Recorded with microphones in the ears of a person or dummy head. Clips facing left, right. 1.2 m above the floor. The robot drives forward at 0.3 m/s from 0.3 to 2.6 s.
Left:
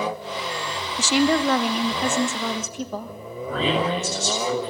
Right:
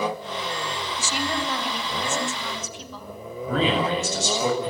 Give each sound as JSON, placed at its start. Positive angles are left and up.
{"t": 1.0, "sound": "a woman speaking", "side_deg": 60, "distance_m": 1.1}
{"t": 3.5, "sound": "a man speaking", "side_deg": -70, "distance_m": 8.0}